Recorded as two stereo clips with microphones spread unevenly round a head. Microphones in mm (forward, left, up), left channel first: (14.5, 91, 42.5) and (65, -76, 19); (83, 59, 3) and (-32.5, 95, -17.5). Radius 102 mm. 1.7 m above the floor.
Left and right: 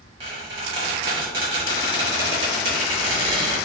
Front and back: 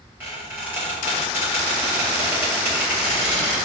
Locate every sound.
0.2 s a squeak: 120° right, 1.1 m